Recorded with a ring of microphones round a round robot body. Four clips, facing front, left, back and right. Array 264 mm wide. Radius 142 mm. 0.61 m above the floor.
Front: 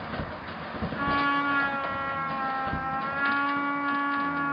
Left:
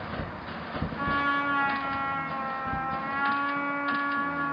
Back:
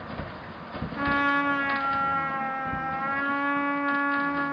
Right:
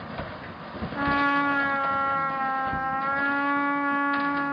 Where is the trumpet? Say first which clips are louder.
Right 4 dB, back 1 dB; 95° right, 1.6 m.